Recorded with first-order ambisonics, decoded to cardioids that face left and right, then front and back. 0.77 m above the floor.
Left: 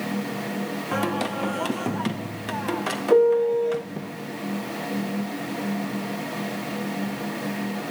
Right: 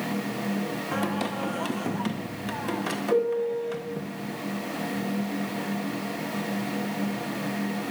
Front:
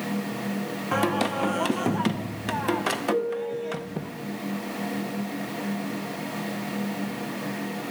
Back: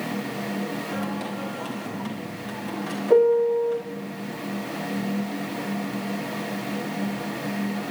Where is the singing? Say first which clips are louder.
Left 5 dB, front 6 dB; 15° left, 0.5 m.